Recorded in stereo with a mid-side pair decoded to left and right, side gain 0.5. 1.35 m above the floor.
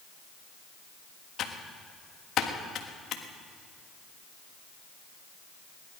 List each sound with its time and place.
1.4 s typing on a keyboard: 60° left, 1.5 m